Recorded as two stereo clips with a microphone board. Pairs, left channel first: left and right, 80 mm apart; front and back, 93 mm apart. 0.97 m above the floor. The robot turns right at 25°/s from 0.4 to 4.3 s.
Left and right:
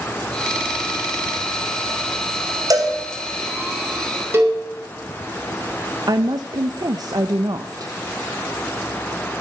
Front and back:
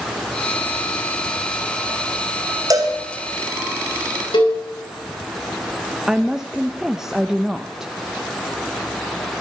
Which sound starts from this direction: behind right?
A cowbell, at 2.7 s.